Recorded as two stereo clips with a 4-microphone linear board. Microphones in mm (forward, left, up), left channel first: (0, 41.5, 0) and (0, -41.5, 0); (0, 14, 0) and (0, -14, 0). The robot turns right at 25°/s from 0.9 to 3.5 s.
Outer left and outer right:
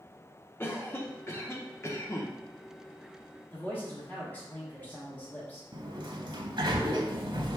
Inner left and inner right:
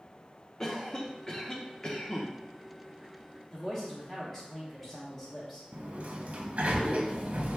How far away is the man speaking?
About 1.0 m.